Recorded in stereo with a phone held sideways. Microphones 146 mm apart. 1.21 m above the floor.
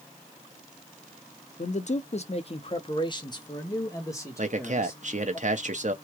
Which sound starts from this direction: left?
A man speaking, at 1.6 s.